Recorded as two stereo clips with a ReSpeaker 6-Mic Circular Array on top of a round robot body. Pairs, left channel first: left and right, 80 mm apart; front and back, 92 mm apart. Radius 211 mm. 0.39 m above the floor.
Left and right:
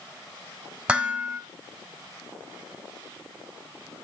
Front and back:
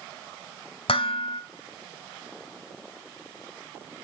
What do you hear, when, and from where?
0.9 s dishes clattering: 15° right, 2.5 m